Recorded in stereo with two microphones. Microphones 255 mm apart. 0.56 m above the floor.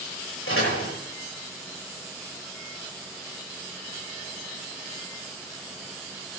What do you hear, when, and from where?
0.5 s a door slam: 55° left (ahead or behind), 10 m